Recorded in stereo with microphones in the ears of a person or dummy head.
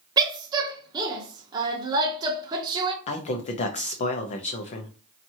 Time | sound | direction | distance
0.2 | a woman speaking | 25° right (ahead or behind) | 0.6 m
3.1 | a man speaking | 40° left (ahead or behind) | 0.6 m